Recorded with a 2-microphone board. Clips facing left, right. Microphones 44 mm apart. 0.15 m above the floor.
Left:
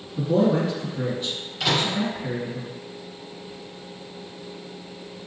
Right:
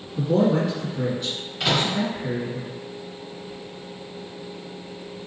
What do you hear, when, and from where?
0.2 s a man speaking: 20° left (ahead or behind), 1.7 m
1.6 s a microwave: 15° right (ahead or behind), 1.8 m